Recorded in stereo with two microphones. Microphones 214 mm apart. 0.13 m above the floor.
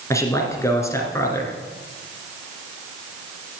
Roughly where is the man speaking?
Centre.